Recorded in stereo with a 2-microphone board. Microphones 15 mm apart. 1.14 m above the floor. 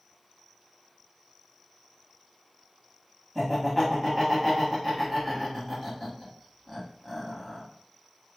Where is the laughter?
10° left (ahead or behind), 1.6 m.